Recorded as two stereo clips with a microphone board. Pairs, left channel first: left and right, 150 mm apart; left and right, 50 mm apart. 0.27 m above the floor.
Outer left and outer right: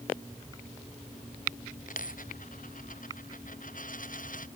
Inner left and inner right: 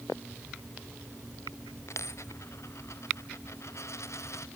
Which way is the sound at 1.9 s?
65° left (ahead or behind).